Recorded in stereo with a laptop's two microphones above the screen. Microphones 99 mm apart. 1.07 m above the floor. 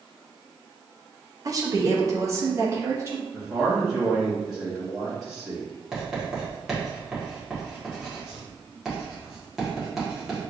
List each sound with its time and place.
1.4 s a woman speaking: 35° right (ahead or behind), 0.7 m; by 3.2 s 25° right (ahead or behind), 1.6 m
3.3 s a man speaking: 5° right (ahead or behind), 1.9 m
5.9 s writing: 5° right (ahead or behind), 1.4 m